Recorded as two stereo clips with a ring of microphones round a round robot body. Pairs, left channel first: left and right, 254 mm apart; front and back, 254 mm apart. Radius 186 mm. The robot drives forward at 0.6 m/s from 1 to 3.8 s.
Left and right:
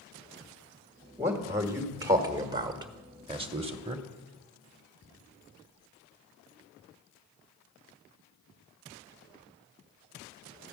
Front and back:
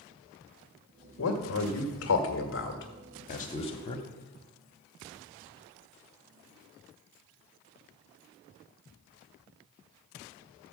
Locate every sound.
1.2 s a man speaking: 10° right, 2 m; by 4.0 s 50° right, 0.9 m